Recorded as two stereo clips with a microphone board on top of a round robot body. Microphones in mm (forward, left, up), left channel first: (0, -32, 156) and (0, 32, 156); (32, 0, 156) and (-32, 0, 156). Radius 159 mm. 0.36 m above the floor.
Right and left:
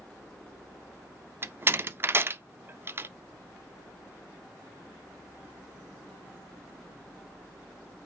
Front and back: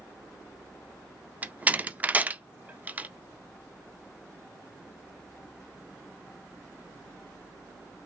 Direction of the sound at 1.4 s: 125° left.